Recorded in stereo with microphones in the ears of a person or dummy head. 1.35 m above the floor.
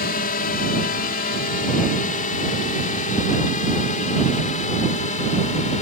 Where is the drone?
45° left (ahead or behind); by 5.8 s 35° left (ahead or behind).